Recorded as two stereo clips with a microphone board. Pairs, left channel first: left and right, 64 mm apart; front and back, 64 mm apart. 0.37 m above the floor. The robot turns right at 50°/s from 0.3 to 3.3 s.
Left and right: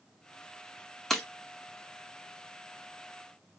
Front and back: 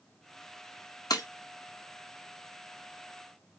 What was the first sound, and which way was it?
Breaking glass, 5° left.